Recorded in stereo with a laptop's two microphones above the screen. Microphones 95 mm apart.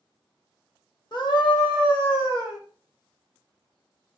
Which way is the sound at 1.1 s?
50° left (ahead or behind).